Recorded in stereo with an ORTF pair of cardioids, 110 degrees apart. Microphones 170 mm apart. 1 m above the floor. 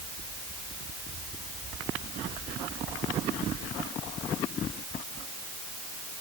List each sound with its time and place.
Only background noise.